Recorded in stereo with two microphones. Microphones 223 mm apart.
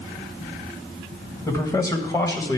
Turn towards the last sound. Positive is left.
turn(degrees=15)  # may be behind; listen again after turning